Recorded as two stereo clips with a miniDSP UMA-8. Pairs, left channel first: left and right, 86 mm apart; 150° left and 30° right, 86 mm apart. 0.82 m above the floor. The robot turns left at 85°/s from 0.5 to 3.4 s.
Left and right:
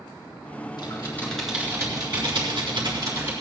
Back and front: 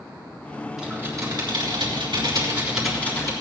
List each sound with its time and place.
0.8 s typing on a keyboard: 55° left, 4 m; by 3.3 s 160° right, 4 m